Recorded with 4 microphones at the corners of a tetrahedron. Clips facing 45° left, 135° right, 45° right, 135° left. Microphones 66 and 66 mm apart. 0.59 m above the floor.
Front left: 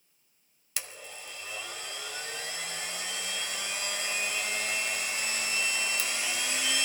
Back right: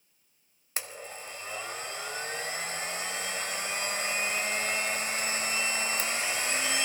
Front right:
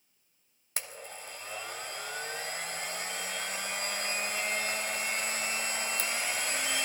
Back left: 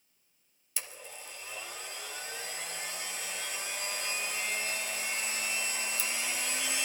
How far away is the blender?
About 1.1 m.